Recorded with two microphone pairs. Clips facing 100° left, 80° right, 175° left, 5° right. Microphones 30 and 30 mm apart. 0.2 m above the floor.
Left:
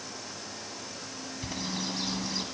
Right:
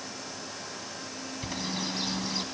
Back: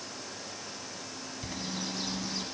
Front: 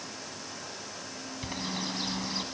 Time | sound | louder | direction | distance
1.4 | a bird | right 1 dB, front 3 dB | straight ahead | 1.8 m